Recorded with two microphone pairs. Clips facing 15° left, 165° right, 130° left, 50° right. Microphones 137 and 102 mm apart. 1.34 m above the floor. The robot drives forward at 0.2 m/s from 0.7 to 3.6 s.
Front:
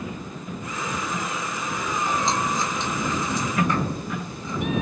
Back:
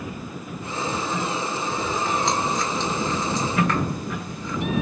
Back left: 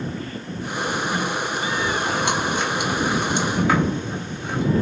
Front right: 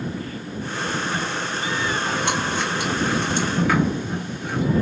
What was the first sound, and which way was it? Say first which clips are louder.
Chewing: even, back left 1 dB; 160° right.